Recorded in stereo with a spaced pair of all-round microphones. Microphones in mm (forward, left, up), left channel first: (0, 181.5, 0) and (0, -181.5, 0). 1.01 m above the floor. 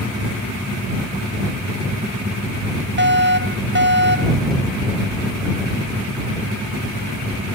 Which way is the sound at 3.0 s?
30° right (ahead or behind).